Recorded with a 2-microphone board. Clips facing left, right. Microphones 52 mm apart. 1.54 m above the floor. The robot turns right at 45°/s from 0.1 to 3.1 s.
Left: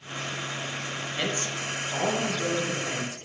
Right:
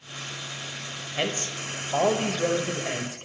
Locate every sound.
1.2 s a man speaking: 145° right, 0.6 m; by 3.3 s 60° right, 0.6 m